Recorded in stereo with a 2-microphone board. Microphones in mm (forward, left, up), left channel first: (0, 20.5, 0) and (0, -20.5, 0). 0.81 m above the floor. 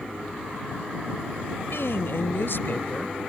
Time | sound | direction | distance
1.7 | a woman speaking | 85° left | ?